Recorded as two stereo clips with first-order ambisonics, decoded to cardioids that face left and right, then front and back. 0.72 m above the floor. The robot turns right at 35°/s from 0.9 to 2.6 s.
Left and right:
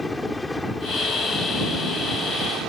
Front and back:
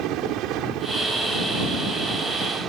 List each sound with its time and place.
0.0 s a helicopter: 175° left; by 2.7 s 130° right